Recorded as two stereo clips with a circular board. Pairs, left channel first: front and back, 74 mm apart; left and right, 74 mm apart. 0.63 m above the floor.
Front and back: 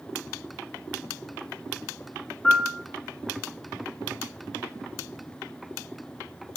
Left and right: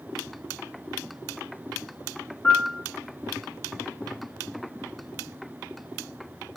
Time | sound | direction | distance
2.4 | a piano | 70° left | 0.7 m